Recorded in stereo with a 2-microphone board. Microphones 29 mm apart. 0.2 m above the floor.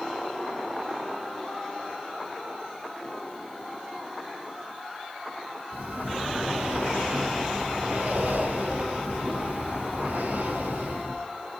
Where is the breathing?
70° right (ahead or behind), 4.5 m.